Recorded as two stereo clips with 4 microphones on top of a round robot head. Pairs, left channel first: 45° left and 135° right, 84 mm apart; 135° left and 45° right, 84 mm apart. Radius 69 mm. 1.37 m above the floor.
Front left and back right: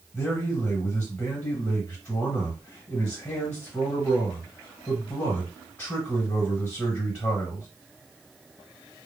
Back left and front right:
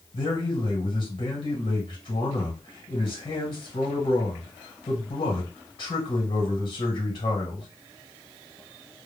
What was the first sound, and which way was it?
A man speaking, 120° left.